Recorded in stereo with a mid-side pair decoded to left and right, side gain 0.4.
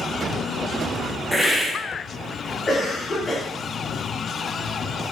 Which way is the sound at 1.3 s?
Straight ahead.